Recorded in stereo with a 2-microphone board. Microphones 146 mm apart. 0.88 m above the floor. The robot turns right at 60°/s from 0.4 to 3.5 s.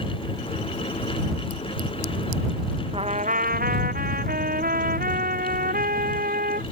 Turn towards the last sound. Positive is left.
turn(degrees=-110)